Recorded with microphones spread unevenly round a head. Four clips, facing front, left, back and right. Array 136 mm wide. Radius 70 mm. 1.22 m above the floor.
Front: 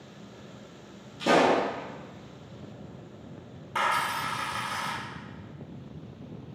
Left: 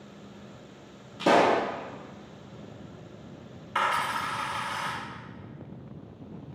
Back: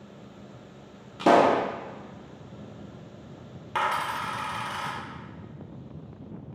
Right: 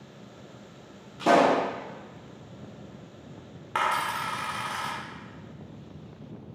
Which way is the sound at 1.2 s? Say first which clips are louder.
Right 1 dB, back 3 dB; 175° left.